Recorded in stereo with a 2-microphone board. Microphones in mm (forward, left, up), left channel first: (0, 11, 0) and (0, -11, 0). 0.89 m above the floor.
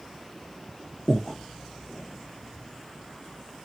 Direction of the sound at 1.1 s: 30° left (ahead or behind).